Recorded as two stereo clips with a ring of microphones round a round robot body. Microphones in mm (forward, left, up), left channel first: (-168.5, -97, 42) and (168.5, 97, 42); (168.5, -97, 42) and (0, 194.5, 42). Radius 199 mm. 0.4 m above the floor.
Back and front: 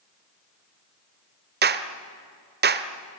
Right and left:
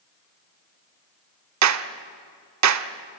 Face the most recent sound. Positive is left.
turn(degrees=90)